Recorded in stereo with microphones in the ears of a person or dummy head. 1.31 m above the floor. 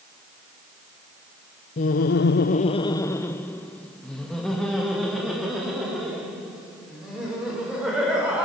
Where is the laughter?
40° left (ahead or behind), 0.7 m; by 8.4 s 5° right (ahead or behind), 6 m.